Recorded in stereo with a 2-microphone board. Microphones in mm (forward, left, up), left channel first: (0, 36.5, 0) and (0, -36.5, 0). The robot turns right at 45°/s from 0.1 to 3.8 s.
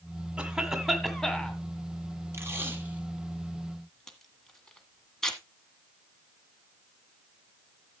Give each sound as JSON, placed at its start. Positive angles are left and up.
{"t": 0.4, "sound": "a cough", "azimuth_deg": -25, "distance_m": 1.8}
{"t": 2.3, "sound": "tape being pulled", "side_deg": -35, "distance_m": 1.7}